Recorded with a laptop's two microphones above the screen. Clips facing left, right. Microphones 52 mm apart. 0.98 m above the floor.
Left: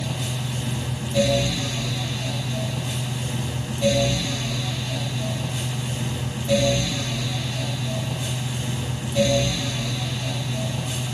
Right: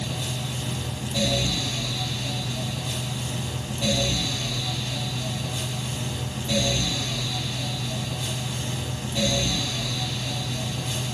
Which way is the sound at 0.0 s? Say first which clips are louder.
Left 2 dB; 15° left (ahead or behind).